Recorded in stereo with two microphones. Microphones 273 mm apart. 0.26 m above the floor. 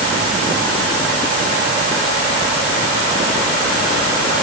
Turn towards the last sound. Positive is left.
No sound to turn to.